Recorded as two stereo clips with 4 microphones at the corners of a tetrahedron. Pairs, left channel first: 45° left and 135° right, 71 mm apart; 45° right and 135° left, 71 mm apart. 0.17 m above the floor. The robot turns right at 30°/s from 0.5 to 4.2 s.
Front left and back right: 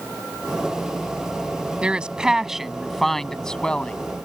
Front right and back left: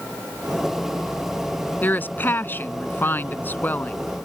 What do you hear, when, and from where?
1.8 s a woman speaking: 75° right; by 3.9 s 10° right